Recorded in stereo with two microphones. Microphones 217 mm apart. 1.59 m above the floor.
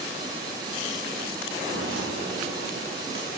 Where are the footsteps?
75° right (ahead or behind), 5.5 m; by 3.3 s 70° right (ahead or behind), 6.5 m.